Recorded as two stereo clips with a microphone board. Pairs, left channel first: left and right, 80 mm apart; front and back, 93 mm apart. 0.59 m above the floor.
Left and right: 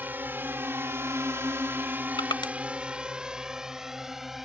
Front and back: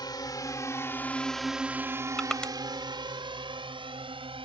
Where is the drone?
30° right; by 4.5 s 175° right.